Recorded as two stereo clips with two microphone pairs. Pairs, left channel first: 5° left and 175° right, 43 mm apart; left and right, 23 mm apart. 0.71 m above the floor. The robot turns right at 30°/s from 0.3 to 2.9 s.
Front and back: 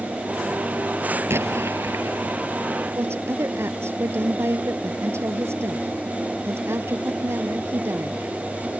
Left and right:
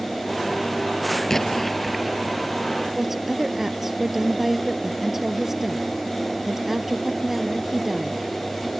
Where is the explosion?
165° left; by 2.4 s 160° right.